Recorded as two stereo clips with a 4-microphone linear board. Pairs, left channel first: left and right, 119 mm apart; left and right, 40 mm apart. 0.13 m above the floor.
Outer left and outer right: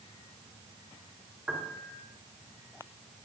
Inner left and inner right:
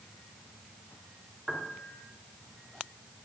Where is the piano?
10° right (ahead or behind), 1.5 m.